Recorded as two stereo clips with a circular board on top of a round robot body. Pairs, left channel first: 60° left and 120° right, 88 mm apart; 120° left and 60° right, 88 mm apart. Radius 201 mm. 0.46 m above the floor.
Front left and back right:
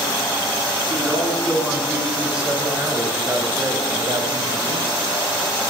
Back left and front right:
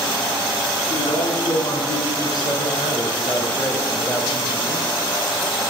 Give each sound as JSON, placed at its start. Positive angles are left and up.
{"t": 0.9, "sound": "a man speaking", "azimuth_deg": 145, "distance_m": 5.5}